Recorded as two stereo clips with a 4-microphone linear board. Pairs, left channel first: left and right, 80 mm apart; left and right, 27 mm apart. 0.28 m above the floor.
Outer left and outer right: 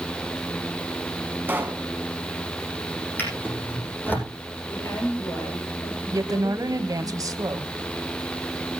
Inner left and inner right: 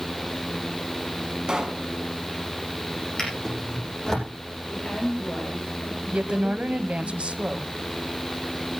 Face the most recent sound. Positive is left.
turn(degrees=-45)  # may be behind; listen again after turning